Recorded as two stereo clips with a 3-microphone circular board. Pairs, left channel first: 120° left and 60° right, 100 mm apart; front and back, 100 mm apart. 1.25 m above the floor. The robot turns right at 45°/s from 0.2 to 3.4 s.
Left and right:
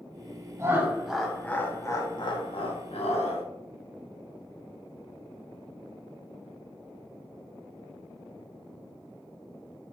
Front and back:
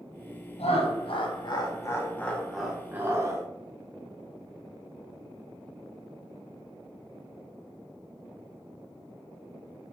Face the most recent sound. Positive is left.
turn(degrees=130)